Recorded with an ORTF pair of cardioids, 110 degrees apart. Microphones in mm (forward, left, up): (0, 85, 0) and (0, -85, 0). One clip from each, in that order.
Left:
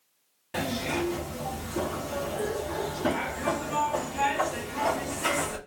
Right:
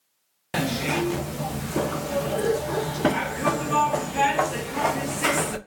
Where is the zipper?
60° right, 0.8 m.